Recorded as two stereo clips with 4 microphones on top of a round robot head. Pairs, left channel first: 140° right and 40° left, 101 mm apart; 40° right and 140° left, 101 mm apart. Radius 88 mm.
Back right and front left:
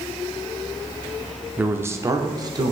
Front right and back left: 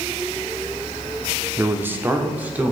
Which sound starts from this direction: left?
A man speaking, at 1.6 s.